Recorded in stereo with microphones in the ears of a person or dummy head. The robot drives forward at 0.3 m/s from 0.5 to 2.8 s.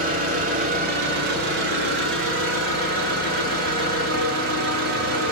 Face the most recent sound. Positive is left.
turn(degrees=-65)  # may be behind; listen again after turning